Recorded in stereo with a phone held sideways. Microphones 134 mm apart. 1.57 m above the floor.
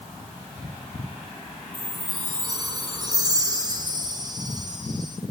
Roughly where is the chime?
Right.